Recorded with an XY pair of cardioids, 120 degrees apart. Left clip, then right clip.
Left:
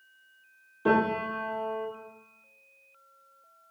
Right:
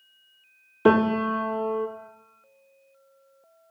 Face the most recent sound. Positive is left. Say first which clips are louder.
# right 5 dB
turn(degrees=-60)